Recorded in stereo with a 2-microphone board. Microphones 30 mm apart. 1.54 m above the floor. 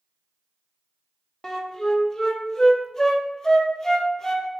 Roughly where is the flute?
Centre.